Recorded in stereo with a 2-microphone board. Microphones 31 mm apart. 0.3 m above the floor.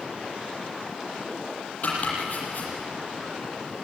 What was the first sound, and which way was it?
Chopping, 55° left (ahead or behind).